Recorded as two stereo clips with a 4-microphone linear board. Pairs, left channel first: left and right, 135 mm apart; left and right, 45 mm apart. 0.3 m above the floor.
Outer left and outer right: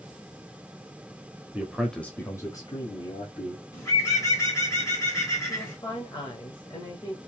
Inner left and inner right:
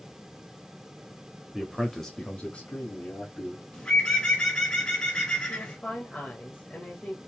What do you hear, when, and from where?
1.5 s a man speaking: 10° right (ahead or behind), 0.9 m; by 3.6 s 45° left (ahead or behind), 2.0 m
3.7 s a bird: 25° left (ahead or behind), 1.8 m
5.5 s a woman speaking: 35° left (ahead or behind), 1.0 m